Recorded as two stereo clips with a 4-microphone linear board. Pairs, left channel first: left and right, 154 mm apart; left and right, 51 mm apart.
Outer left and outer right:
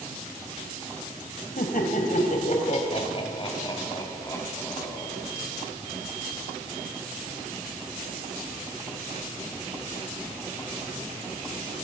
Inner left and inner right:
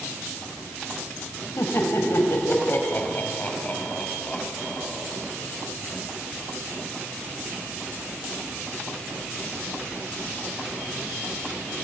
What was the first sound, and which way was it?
Laughter, 65° left (ahead or behind).